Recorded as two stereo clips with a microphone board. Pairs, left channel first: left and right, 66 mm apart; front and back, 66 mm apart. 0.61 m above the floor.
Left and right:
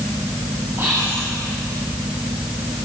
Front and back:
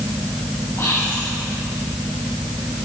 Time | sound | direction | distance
0.8 | whispering | 45° right | 4 m